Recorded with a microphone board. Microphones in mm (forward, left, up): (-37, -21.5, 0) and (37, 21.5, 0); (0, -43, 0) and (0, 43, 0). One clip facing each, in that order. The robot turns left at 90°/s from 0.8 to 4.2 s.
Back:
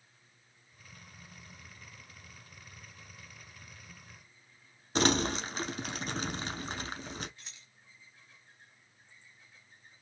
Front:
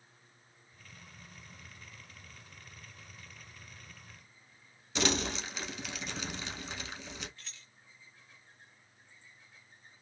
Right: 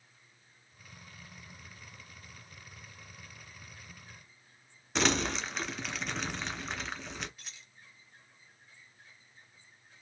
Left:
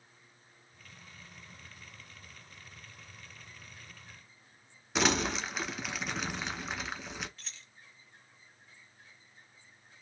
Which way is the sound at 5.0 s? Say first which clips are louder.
Back 4 dB, even; 175° left.